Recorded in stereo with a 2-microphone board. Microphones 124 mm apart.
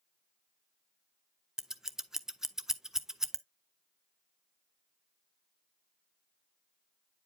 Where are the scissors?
5° right (ahead or behind), 0.6 m.